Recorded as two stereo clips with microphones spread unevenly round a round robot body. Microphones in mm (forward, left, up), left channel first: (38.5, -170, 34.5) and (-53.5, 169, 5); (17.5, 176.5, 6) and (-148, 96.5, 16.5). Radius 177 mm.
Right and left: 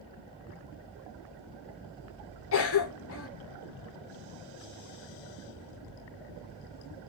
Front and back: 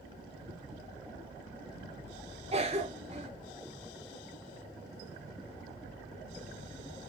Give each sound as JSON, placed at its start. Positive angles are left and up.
{"t": 2.5, "sound": "a cough", "azimuth_deg": -105, "distance_m": 0.7}